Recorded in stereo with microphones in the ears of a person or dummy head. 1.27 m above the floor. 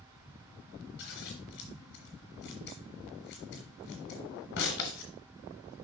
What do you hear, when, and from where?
1.0 s scissors: 50° left (ahead or behind), 1.7 m